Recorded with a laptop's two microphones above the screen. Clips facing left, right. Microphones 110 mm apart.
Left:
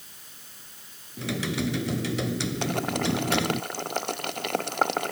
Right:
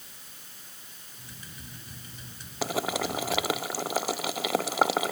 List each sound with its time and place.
1.2 s typing on a keyboard: 80° left
2.6 s boiling: 5° right (ahead or behind)